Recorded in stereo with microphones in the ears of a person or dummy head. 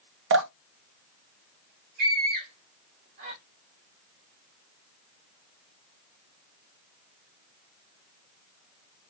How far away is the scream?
About 1.8 m.